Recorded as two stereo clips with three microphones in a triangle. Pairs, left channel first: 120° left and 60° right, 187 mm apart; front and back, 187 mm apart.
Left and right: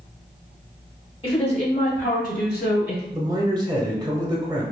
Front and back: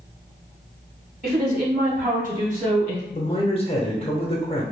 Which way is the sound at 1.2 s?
175° left.